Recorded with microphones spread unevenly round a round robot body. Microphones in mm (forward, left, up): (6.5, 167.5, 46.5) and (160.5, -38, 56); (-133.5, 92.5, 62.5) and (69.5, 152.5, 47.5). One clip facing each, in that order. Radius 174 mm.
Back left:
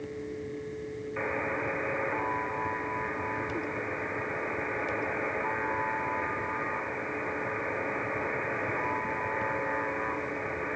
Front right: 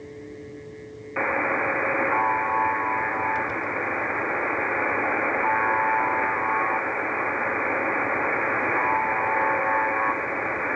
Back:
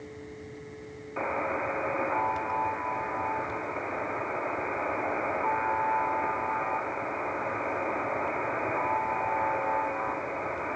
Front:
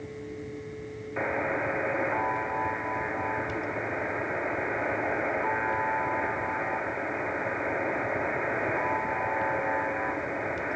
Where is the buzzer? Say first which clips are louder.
Front right 8 dB, front 2 dB; 60° right, 1.1 m.